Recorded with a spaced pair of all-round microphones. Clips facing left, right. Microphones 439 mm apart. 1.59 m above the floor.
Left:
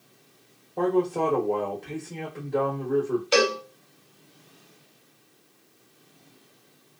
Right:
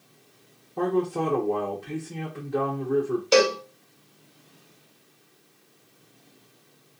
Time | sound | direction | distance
0.8 | a man speaking | 20° right (ahead or behind) | 0.9 m
3.3 | a cowbell | 60° right (ahead or behind) | 1.0 m